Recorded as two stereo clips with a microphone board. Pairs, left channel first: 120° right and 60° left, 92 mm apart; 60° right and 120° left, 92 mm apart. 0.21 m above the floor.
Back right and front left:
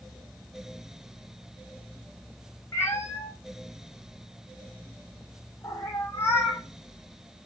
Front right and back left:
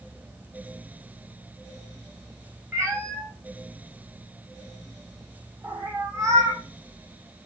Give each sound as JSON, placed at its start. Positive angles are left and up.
{"t": 2.7, "sound": "a cat meowing", "azimuth_deg": 175, "distance_m": 1.2}